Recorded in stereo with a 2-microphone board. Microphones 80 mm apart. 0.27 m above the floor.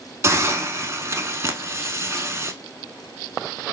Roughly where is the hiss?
Right.